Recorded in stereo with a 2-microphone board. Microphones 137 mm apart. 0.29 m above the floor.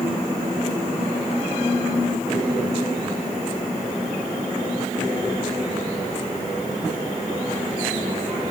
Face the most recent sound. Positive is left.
No sound to turn to.